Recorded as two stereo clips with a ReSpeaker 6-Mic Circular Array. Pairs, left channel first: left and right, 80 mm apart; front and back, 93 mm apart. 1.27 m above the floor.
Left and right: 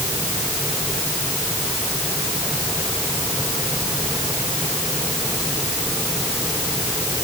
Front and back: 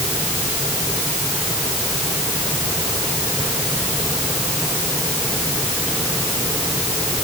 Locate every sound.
Only background noise.